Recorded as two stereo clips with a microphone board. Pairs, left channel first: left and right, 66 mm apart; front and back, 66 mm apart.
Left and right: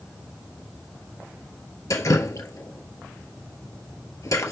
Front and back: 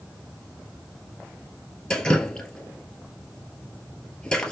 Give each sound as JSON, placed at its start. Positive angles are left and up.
{"t": 1.9, "sound": "dripping", "azimuth_deg": 75, "distance_m": 1.6}